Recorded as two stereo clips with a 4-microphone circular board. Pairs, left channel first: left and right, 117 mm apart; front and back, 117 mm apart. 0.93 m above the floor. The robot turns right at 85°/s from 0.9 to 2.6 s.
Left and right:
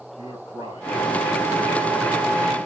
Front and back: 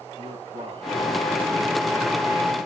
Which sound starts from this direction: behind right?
A man speaking, at 0.2 s.